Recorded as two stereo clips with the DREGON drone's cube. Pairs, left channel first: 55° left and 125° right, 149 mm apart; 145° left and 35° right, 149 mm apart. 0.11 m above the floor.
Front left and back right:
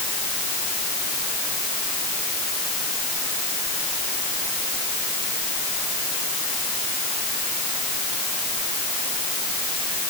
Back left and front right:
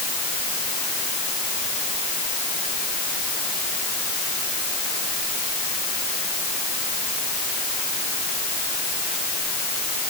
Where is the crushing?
No crushing in this recording.